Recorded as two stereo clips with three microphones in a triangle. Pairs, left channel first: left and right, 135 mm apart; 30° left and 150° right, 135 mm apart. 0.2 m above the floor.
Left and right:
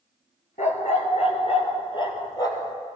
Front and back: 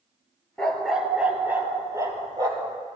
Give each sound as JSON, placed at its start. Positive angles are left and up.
{"t": 0.6, "sound": "a dog barking", "azimuth_deg": 115, "distance_m": 1.5}